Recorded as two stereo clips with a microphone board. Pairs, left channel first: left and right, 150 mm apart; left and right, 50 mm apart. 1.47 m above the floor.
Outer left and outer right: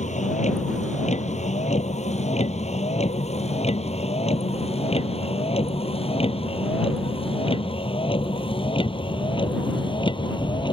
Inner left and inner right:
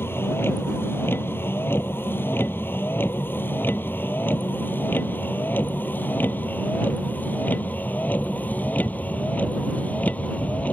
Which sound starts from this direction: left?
A vehicle, at 0.0 s.